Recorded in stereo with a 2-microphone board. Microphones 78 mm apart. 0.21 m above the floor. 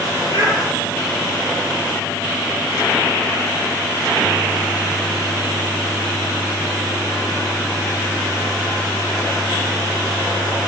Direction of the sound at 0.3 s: 60° right (ahead or behind).